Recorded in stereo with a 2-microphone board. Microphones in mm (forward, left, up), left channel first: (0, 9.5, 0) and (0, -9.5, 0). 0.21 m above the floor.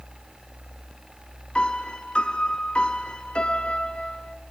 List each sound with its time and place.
1.6 s a piano: 60° left (ahead or behind), 1.8 m